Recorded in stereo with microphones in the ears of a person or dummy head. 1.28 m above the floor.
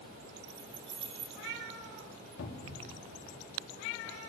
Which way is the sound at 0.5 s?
30° right (ahead or behind).